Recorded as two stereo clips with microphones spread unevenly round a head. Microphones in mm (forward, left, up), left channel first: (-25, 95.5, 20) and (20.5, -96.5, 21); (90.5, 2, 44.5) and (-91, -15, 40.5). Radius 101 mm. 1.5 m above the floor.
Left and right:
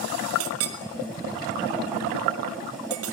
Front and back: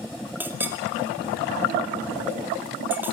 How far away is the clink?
About 2 m.